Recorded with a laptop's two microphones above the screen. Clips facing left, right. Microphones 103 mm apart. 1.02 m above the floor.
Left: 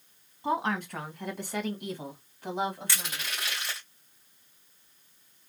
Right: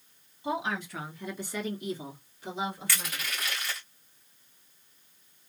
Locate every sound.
0.4 s a woman speaking: 45° left (ahead or behind), 1.1 m
2.9 s crushing: 25° left (ahead or behind), 1.6 m